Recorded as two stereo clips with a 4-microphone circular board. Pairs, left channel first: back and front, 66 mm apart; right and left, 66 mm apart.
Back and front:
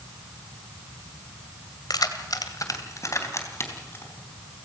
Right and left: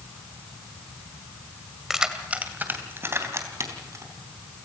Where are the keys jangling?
175° left, 2 m; by 4.0 s 130° left, 4 m.